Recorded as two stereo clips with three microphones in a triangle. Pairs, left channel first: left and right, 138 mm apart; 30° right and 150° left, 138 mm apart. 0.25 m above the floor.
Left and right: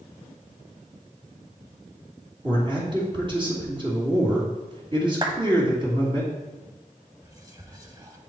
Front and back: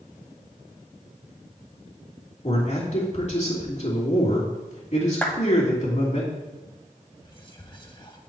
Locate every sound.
2.4 s a man speaking: 45° right, 2.5 m
5.2 s a clap: 100° right, 1.0 m
7.2 s whispering: 50° right, 1.0 m